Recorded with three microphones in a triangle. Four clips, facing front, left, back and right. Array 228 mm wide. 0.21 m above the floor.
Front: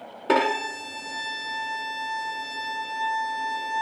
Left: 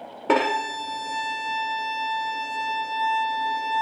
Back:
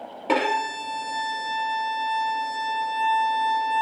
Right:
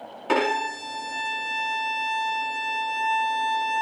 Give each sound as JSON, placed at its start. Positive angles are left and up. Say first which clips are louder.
{"t": 0.3, "sound": "a violin", "louder": "left 2 dB, even", "azimuth_deg": 75, "distance_m": 1.3}